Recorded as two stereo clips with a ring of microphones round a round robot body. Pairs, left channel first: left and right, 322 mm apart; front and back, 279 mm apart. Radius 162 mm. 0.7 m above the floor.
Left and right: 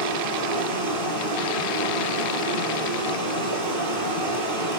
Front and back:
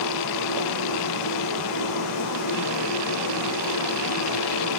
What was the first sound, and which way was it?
Running water, 45° right.